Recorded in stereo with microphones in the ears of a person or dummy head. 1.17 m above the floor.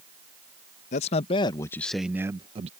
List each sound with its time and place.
0.9 s a man speaking: 40° left (ahead or behind); by 2.7 s 30° right (ahead or behind)